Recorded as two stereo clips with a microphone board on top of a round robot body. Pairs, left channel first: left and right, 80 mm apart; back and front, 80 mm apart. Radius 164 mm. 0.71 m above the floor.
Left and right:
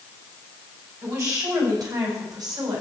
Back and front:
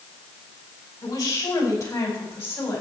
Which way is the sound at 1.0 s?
135° right.